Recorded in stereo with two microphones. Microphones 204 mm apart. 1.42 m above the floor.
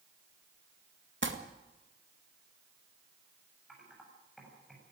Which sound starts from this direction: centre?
Typing on a keyboard, at 3.7 s.